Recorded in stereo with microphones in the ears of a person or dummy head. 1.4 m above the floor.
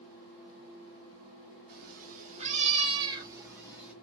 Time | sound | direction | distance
1.7 | a cat meowing | 55° right (ahead or behind) | 1.7 m